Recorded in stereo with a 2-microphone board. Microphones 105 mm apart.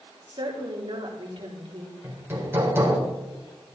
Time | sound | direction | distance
0.3 | a woman speaking | 50° right (ahead or behind) | 3.5 m
2.0 | hammering | 20° right (ahead or behind) | 3.5 m